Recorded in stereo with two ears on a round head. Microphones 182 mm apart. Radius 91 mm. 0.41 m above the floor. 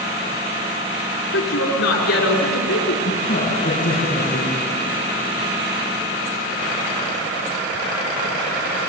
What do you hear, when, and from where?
1.3 s a woman speaking: 75° left (ahead or behind), 5.5 m
3.0 s a woman speaking: 45° left (ahead or behind), 4.5 m